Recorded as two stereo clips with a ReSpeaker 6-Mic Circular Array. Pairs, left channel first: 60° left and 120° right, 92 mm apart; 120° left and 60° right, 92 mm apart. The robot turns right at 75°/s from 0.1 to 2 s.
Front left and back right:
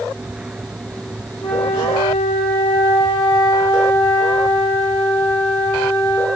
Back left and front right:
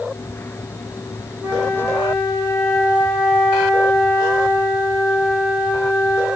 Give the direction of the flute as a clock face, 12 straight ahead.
11 o'clock.